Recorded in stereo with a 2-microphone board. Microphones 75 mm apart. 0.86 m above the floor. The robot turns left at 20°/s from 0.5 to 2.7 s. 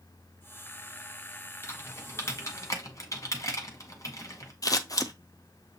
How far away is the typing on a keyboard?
About 1.1 m.